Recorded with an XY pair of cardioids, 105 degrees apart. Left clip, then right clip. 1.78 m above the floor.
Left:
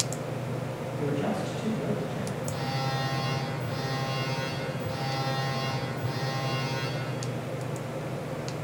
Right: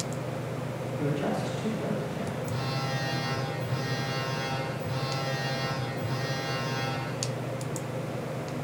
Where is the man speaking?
25° right, 1.5 m; by 2.3 s 10° left, 1.8 m.